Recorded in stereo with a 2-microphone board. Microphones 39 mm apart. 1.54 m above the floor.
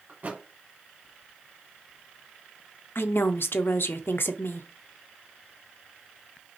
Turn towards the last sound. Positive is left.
turn(degrees=70)  # may be behind; listen again after turning